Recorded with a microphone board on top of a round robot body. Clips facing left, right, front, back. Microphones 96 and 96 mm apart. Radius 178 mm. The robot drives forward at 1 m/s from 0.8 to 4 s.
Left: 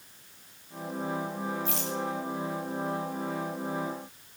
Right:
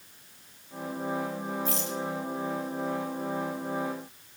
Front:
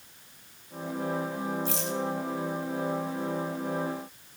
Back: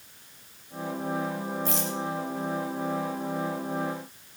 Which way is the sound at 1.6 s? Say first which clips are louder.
Right 1 dB, back 1 dB; 140° right.